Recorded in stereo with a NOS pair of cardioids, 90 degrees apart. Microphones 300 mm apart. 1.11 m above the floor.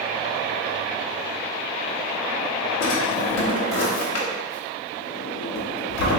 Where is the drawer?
60° left, 1.1 m.